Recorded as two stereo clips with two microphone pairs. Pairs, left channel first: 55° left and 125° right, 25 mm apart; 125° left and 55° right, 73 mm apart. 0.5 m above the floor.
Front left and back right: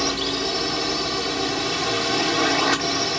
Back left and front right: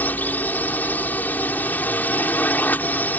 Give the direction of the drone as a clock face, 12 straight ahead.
7 o'clock.